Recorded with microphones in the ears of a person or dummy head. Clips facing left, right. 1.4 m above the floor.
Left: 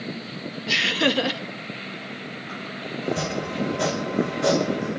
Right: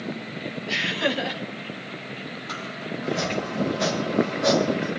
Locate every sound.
0.7 s laughter: 60° left (ahead or behind), 1.6 m
3.0 s chopping: 35° left (ahead or behind), 4.5 m